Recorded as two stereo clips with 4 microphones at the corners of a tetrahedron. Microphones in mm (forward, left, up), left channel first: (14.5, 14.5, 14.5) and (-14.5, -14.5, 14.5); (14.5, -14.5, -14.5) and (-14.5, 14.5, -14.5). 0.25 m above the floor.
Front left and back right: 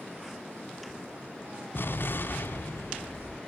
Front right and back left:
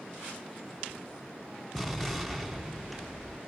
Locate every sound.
1.7 s an explosion: 40° left, 1.5 m